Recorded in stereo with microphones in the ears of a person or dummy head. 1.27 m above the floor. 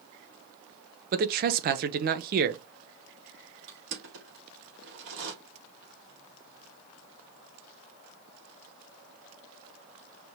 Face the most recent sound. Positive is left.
turn(degrees=-70)  # may be behind; listen again after turning